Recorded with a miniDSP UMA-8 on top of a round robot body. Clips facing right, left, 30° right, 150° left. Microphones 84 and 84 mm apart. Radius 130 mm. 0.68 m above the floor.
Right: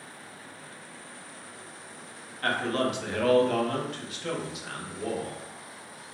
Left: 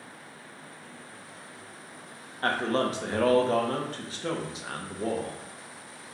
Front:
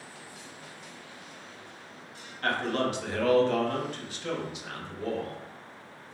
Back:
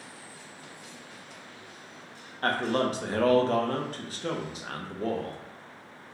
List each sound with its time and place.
2.4 s a man speaking: 125° left, 0.8 m